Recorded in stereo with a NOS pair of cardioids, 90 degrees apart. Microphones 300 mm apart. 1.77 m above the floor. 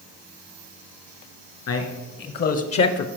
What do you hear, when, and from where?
1.7 s a man speaking: 60° left, 1.9 m; by 3.1 s 55° left, 0.6 m